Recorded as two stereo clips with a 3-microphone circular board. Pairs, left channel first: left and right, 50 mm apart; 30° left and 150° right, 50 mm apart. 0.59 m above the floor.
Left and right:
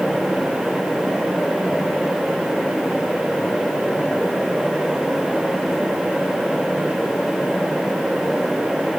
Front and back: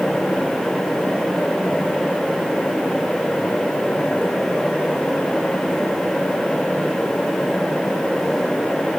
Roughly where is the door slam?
I don't hear a door slam.